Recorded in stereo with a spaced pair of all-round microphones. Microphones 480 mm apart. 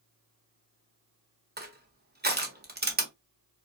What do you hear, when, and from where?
1.6 s crushing: 20° right (ahead or behind), 0.8 m